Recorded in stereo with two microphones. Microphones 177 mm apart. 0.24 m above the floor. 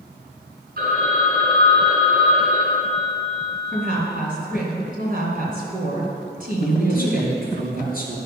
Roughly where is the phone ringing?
Right.